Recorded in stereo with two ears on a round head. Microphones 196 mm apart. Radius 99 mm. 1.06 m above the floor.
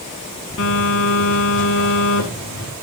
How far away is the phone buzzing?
About 3 m.